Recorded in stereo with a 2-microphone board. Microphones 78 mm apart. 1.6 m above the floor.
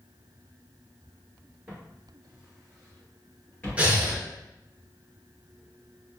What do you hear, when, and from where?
1.7 s footsteps: 20° right (ahead or behind), 1.6 m; by 3.9 s 25° left (ahead or behind), 1.7 m
3.8 s breathing: 15° right (ahead or behind), 0.8 m